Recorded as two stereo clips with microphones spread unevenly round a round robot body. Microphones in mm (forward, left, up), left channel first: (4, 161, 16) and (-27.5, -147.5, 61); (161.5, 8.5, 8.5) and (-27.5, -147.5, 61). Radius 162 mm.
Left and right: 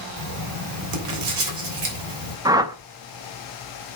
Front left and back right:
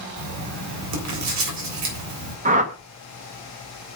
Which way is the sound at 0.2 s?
130° right.